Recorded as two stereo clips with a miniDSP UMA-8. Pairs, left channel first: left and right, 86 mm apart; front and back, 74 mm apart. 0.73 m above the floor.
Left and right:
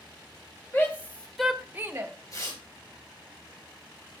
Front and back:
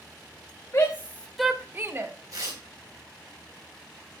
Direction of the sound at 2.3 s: 140° left.